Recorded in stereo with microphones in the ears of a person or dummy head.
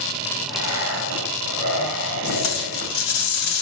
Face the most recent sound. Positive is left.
turn(degrees=75)  # may be behind; listen again after turning